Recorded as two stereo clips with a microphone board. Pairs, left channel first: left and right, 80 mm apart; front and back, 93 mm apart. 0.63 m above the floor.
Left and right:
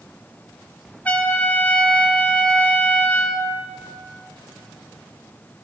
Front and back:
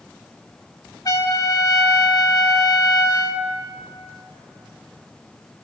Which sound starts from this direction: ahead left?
A trumpet, at 1.1 s.